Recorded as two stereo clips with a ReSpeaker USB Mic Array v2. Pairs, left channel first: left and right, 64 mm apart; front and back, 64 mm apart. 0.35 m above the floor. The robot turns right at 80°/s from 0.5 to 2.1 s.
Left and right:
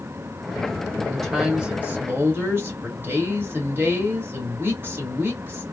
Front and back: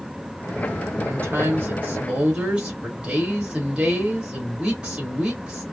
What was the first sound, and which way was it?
A woman speaking, 155° left.